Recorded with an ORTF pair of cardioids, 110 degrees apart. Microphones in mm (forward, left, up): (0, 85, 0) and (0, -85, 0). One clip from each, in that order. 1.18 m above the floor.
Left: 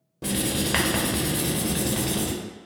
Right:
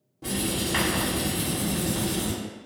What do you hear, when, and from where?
0.2 s writing: 45° left, 0.6 m